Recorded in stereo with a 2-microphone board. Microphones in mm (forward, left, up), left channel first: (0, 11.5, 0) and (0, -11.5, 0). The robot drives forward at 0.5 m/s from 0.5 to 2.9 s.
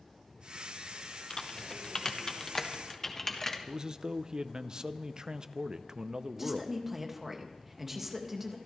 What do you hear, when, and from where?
1.3 s typing on a keyboard: 35° left (ahead or behind), 0.9 m; by 3.6 s 20° left (ahead or behind), 1.6 m
3.7 s a man speaking: 35° right (ahead or behind), 0.7 m
6.3 s a woman speaking: 10° right (ahead or behind), 2 m